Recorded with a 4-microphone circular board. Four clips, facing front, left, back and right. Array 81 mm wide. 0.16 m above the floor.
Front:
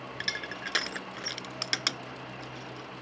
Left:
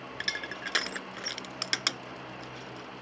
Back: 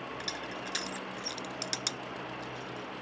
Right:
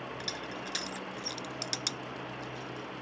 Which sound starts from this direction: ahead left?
Crushing, at 0.1 s.